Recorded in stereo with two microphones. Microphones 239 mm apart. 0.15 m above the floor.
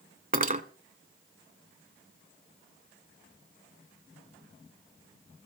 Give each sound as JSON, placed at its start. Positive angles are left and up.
{"t": 0.3, "sound": "cutlery clinking", "side_deg": -35, "distance_m": 0.8}